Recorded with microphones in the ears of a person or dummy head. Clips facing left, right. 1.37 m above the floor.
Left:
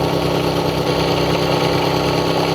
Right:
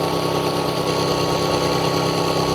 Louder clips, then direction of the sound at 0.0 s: Left 3 dB; 15° left (ahead or behind).